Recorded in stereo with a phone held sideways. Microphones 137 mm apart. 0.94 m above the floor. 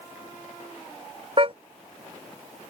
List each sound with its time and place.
1.4 s a car horn: 40° right (ahead or behind)